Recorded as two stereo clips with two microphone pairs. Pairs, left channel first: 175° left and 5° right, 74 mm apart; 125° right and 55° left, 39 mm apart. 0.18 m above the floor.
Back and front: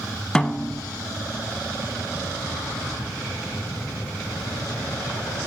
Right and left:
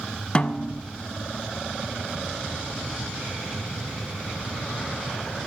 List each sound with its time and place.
0.3 s a snare drum: 120° right, 0.6 m